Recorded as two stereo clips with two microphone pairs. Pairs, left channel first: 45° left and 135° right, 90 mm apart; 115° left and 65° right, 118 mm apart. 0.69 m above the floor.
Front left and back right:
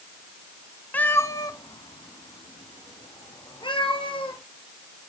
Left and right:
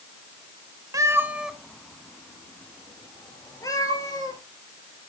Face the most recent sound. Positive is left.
turn(degrees=60)